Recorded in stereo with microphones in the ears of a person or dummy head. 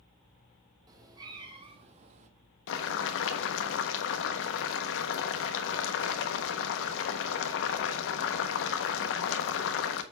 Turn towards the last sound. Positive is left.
turn(degrees=70)  # may be behind; listen again after turning